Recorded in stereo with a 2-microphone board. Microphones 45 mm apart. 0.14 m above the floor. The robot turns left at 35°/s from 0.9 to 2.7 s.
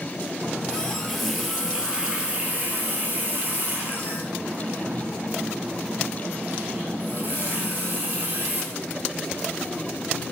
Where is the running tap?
15° left, 1.6 m; by 8.6 s 50° right, 1.6 m.